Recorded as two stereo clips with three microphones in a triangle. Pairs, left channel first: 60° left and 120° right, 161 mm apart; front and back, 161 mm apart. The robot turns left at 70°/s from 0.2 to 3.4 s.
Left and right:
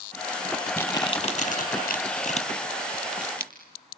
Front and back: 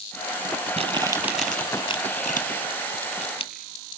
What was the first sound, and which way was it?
Crumpling, 140° left.